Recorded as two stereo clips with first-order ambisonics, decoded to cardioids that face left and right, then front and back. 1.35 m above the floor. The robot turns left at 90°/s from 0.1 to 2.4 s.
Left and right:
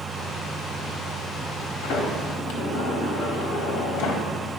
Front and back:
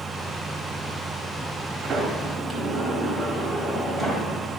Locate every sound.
1.8 s a sliding door: 130° left, 1.8 m; by 4.2 s 75° left, 1.8 m